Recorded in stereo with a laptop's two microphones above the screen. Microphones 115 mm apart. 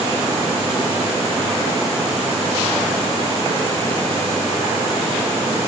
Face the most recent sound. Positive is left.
No sound to turn to.